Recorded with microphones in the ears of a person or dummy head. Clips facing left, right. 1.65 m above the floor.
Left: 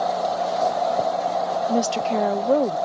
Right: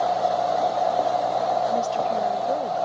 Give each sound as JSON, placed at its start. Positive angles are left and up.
{"t": 1.7, "sound": "a woman speaking", "side_deg": 60}